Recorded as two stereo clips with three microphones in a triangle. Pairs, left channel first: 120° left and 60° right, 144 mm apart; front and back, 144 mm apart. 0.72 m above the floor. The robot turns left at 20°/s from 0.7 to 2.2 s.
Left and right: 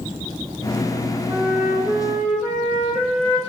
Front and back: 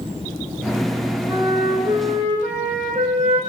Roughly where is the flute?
Behind right.